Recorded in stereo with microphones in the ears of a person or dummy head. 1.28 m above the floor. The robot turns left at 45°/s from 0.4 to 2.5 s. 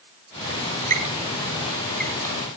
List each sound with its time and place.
0.9 s a squeak: 40° right (ahead or behind), 2 m; by 2.3 s 15° left (ahead or behind), 2 m